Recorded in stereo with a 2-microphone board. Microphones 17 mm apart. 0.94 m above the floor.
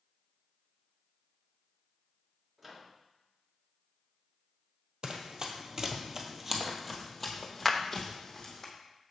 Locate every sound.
2.6 s a microwave: 5° right (ahead or behind), 1.4 m
5.0 s running footsteps: 45° right (ahead or behind), 1.4 m; by 8.7 s 35° left (ahead or behind), 2 m
7.7 s a clap: 10° left (ahead or behind), 0.7 m